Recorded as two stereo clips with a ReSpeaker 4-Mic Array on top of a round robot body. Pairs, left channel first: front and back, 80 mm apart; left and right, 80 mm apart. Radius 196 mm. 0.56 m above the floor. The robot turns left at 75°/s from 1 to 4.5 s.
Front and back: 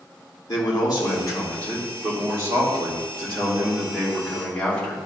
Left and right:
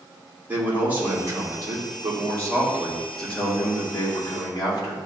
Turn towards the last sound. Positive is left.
turn(degrees=75)